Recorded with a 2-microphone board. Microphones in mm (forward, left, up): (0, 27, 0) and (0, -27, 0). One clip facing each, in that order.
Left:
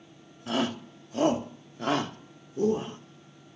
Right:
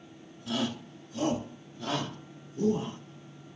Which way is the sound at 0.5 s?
40° left (ahead or behind).